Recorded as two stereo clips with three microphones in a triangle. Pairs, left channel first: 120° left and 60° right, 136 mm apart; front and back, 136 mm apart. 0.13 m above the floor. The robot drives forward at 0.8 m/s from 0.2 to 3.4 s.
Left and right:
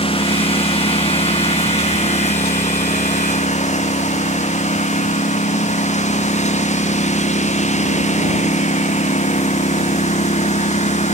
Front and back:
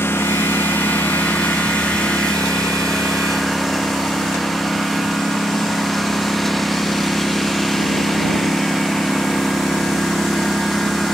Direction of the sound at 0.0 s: 75° left.